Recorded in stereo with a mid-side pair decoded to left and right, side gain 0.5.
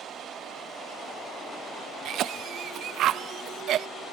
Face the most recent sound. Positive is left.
turn(degrees=-60)